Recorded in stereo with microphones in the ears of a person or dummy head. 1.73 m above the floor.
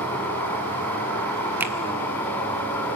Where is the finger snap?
10° right (ahead or behind), 1.5 m.